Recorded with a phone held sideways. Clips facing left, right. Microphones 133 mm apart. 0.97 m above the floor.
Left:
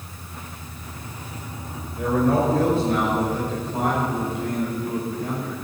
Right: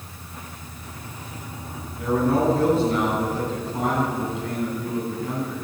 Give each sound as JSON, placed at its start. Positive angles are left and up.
{"t": 2.0, "sound": "a man speaking", "side_deg": 75, "distance_m": 4.5}